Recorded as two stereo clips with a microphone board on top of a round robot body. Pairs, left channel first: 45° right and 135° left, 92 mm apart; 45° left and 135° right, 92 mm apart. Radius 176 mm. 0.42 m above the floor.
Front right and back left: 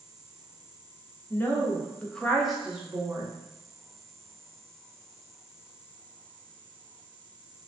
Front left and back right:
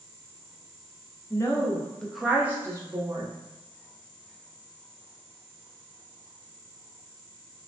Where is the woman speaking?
10° left, 0.9 m; by 3.3 s 155° right, 1.0 m.